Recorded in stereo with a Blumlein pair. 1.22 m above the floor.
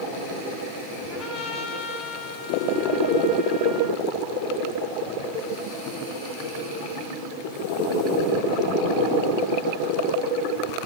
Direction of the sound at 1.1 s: 30° left.